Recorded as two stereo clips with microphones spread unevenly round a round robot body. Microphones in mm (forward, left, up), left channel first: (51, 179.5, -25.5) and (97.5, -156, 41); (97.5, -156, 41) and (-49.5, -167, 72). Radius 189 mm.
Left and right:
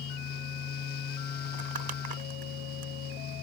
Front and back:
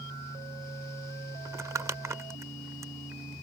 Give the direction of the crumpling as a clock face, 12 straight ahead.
3 o'clock.